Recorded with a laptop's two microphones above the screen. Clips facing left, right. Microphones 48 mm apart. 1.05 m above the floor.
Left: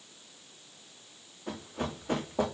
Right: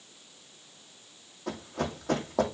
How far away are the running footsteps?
About 3 m.